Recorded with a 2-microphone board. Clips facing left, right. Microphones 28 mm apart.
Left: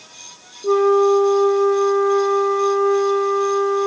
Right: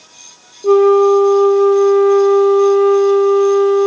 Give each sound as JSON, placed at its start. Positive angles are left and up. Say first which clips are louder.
{"t": 0.6, "sound": "a flute", "louder": "right 5 dB", "side_deg": -55, "distance_m": 0.7}